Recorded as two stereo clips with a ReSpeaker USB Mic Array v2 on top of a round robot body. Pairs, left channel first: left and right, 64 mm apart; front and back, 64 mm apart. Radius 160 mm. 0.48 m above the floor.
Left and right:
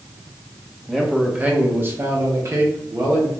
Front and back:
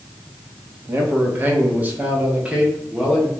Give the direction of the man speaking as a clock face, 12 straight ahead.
6 o'clock.